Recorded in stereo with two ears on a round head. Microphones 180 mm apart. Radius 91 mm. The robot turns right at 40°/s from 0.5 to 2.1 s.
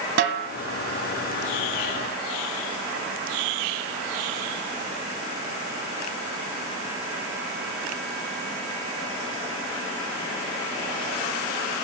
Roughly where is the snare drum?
Right.